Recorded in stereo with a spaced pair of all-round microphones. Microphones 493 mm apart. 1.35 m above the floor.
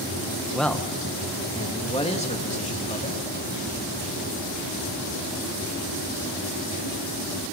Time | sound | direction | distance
0.5 | a man speaking | centre (ahead or behind) | 1.2 m